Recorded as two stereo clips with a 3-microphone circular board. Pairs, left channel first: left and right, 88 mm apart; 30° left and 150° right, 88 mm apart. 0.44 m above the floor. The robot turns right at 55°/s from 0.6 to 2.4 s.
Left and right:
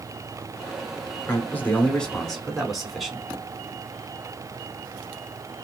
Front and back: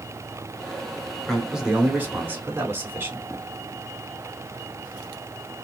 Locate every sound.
1.3 s a man speaking: 115° left, 1.3 m; by 3.2 s 175° left, 1.3 m